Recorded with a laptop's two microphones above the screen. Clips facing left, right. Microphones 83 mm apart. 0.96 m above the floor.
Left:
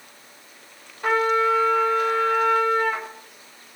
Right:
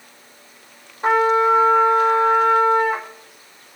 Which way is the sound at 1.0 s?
25° right (ahead or behind).